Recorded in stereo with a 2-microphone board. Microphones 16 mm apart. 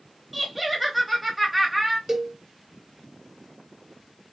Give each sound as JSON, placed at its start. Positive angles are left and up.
{"t": 0.3, "sound": "laughter", "side_deg": -10, "distance_m": 0.9}
{"t": 2.1, "sound": "a cowbell", "side_deg": -25, "distance_m": 0.7}